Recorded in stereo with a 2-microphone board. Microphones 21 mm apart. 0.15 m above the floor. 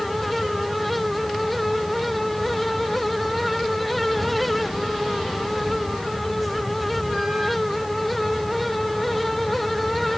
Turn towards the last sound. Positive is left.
No sound to turn to.